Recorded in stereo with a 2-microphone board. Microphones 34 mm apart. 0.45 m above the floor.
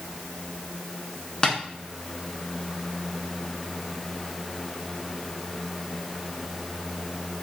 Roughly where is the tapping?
Left.